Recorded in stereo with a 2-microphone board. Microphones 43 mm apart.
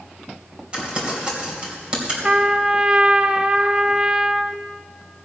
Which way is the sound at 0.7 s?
25° right (ahead or behind).